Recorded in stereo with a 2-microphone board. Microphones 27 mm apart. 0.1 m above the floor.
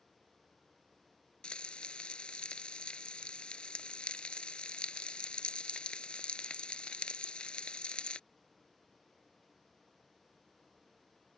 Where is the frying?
40° left (ahead or behind).